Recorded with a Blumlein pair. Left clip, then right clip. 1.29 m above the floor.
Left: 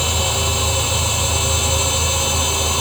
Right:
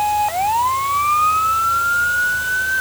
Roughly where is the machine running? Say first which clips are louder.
Right 3 dB; ahead left.